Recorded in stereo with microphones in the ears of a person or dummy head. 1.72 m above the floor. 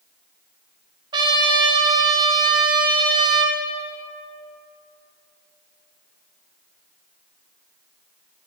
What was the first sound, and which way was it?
A trumpet, 25° right (ahead or behind).